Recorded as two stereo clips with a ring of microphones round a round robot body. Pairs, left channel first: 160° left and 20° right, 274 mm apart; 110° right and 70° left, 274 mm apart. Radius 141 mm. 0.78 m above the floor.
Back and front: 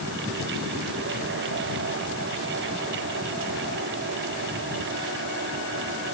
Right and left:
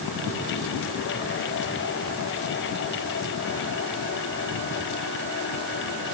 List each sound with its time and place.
Only background noise.